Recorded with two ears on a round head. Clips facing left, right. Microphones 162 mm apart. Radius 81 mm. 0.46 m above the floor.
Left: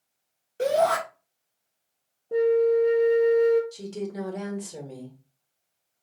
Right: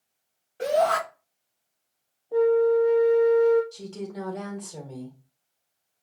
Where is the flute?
75° left (ahead or behind), 1.8 m.